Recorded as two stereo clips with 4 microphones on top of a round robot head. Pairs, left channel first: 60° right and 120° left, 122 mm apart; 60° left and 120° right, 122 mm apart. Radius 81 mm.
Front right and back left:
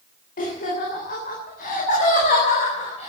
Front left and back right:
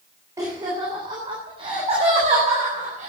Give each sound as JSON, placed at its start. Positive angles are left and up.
{"t": 0.4, "sound": "laughter", "azimuth_deg": -55, "distance_m": 3.5}